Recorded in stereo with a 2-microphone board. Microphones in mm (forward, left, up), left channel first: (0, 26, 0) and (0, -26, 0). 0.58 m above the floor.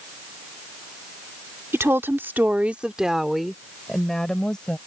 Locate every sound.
1.7 s a woman speaking: 55° right (ahead or behind); by 4.8 s 15° left (ahead or behind)